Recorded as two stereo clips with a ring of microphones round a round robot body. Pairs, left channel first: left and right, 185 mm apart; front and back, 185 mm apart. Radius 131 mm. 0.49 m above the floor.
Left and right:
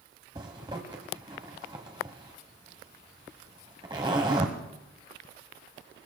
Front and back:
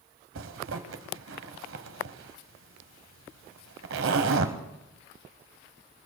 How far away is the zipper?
About 1.4 m.